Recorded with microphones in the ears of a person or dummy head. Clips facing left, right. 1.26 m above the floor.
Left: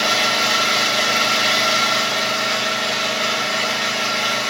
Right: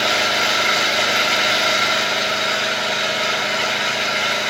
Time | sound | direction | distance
0.0 | an engine running | 15° right (ahead or behind) | 6.5 m